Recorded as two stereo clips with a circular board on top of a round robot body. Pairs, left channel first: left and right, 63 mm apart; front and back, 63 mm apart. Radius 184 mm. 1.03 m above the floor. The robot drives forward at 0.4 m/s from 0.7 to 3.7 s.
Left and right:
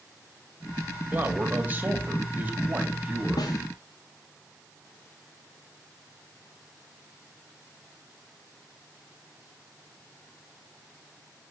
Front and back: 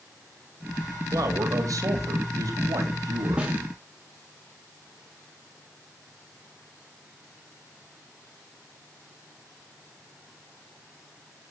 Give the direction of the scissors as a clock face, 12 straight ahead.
No scissors in this recording.